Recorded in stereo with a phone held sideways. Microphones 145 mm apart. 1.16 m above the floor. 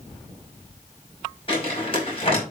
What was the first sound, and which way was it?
Crumpling, 40° left (ahead or behind).